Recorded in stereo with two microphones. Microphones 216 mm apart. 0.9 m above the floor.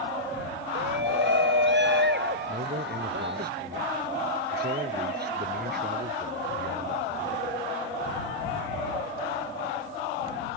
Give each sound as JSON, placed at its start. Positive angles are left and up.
{"t": 0.8, "sound": "a shout", "side_deg": -55}
{"t": 2.5, "sound": "a man speaking", "side_deg": -45}